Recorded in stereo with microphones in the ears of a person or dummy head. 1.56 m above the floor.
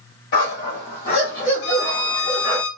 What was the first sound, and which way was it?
A dog barking, 55° left (ahead or behind).